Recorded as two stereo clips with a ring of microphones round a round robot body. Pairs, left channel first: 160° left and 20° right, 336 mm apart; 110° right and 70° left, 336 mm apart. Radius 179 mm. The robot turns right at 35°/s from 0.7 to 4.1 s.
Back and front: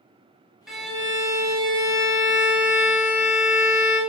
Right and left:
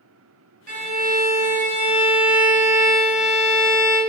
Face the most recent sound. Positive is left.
turn(degrees=-175)